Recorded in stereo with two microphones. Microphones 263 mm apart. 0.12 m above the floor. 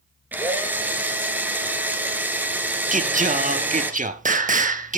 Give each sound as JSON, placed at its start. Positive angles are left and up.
{"t": 0.3, "sound": "a drill", "side_deg": -5, "distance_m": 1.5}
{"t": 2.9, "sound": "singing", "side_deg": -30, "distance_m": 0.8}